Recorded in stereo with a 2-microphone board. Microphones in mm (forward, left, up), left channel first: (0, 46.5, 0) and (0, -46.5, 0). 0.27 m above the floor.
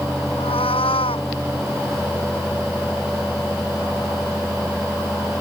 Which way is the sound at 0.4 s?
85° left.